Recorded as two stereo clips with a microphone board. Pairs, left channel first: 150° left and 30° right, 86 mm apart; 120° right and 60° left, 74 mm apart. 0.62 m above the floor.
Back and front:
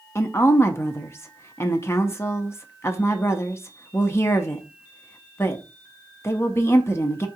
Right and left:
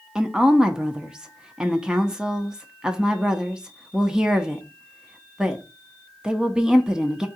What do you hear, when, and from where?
0.1 s a woman speaking: 130° left, 0.7 m